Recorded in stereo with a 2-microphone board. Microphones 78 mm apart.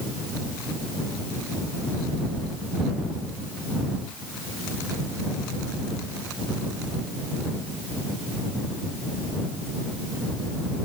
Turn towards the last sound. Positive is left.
No sound to turn to.